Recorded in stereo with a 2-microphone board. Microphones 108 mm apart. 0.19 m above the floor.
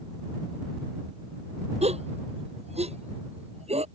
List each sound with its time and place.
1.8 s a gasp: 75° right (ahead or behind)